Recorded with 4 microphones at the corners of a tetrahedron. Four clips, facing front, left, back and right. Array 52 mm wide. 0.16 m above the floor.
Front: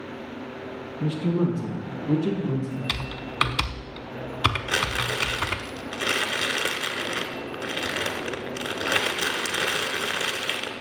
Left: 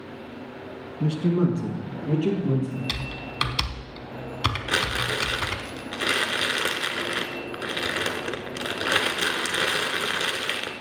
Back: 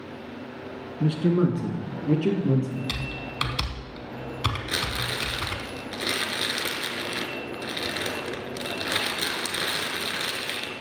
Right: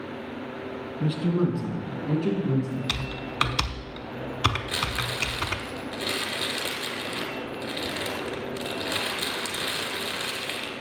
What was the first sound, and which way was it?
A man speaking, 160° left.